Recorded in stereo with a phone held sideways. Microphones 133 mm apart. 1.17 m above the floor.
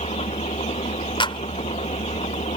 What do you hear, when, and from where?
0.0 s an engine running: 50° left (ahead or behind)
1.2 s a clap: 40° left (ahead or behind)